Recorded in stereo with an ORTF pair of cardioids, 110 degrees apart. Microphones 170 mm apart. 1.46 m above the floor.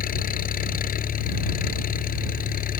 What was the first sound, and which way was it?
An engine running, 55° left.